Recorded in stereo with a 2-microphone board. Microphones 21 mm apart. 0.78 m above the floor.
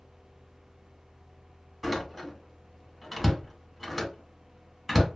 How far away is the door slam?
About 1.0 m.